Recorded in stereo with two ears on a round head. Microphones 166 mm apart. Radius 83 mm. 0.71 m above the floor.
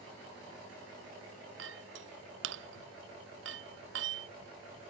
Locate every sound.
1.6 s a clink: 80° right